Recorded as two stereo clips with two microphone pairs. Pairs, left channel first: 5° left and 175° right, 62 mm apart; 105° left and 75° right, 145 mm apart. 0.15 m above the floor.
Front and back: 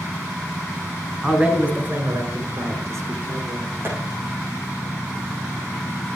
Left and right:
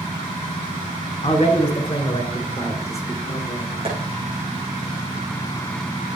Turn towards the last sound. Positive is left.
turn(degrees=-125)